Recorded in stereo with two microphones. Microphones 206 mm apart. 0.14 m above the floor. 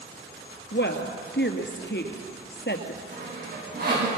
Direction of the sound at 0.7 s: 60° left (ahead or behind).